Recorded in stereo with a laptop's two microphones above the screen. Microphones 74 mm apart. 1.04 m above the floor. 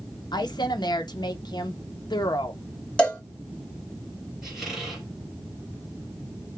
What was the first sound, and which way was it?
A woman speaking, 70° left (ahead or behind).